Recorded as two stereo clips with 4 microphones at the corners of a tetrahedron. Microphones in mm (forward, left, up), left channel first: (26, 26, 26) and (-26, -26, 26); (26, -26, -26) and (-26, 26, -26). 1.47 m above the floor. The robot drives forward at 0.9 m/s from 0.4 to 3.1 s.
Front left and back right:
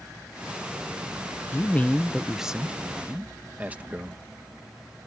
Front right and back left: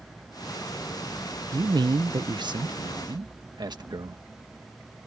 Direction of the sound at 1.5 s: 100° left.